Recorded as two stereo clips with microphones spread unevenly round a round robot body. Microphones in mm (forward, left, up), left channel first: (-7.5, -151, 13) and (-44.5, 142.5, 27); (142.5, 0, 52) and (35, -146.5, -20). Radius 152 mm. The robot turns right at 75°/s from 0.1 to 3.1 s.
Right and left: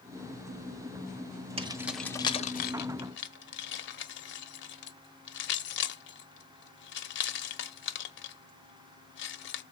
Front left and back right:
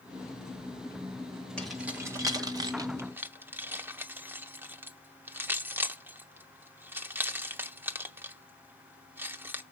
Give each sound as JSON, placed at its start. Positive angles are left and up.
{"t": 1.6, "sound": "keys jangling", "azimuth_deg": 160, "distance_m": 1.1}